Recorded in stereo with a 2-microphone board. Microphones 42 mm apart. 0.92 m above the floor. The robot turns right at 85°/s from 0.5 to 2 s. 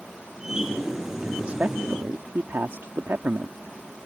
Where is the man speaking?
165° right; by 3.6 s 100° right.